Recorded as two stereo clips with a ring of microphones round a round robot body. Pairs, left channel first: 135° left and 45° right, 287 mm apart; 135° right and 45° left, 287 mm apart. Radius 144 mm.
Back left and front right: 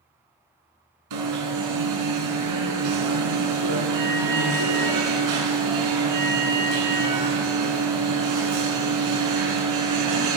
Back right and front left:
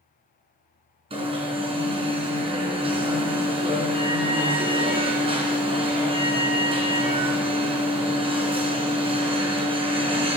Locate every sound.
1.1 s an alarm: 25° right, 4.5 m